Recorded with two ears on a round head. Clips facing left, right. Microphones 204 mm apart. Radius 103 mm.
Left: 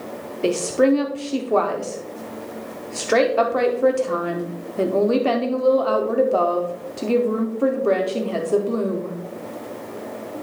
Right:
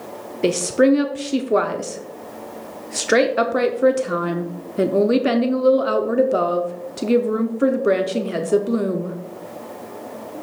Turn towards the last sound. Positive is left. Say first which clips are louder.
# right 2 dB
turn(degrees=-20)  # may be behind; listen again after turning